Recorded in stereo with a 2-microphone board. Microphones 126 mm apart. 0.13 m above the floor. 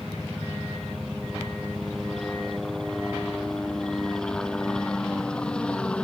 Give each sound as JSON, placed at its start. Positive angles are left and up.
{"t": 0.0, "sound": "a helicopter", "side_deg": 0}